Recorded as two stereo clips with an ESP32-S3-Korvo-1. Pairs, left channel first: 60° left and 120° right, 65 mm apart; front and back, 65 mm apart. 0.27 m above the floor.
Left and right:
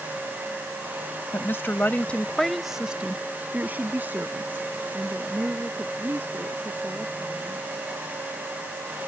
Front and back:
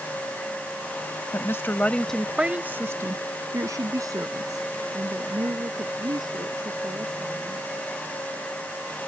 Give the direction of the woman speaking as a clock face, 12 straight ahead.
11 o'clock.